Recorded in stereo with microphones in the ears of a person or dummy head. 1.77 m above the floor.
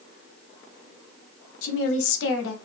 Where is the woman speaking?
75° left (ahead or behind), 0.8 m.